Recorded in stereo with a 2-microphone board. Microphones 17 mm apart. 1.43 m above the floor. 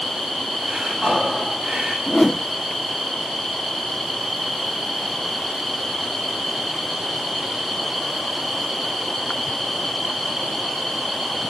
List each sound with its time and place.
0.6 s breathing: 85° right, 6 m
2.1 s a whoosh: 30° left (ahead or behind), 0.6 m